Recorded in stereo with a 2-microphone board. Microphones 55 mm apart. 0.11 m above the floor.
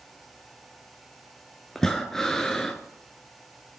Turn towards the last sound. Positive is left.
turn(degrees=10)  # may be behind; listen again after turning